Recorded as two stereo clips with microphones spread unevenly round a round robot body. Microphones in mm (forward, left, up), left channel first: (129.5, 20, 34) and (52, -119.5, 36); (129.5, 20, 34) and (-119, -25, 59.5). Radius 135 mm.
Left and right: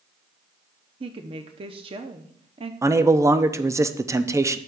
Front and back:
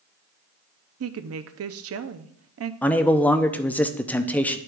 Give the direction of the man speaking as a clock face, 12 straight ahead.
2 o'clock.